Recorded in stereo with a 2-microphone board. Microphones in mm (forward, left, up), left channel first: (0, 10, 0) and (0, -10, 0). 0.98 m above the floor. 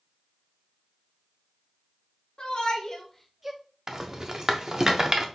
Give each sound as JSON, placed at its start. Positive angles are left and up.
{"t": 2.4, "sound": "a shout", "side_deg": 50, "distance_m": 1.3}
{"t": 3.9, "sound": "a rattle", "side_deg": -25, "distance_m": 0.7}